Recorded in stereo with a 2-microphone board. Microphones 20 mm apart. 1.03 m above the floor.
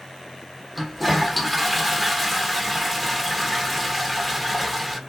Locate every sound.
0.8 s a toilet flushing: 5° left (ahead or behind), 1.0 m